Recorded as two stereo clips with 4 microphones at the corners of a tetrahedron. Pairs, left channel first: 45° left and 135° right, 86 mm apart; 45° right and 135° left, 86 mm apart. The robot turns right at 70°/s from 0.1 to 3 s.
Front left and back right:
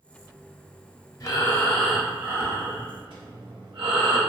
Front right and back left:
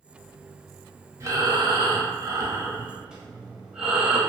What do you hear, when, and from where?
1.2 s breathing: 85° left, 0.6 m; by 4.2 s 145° right, 0.6 m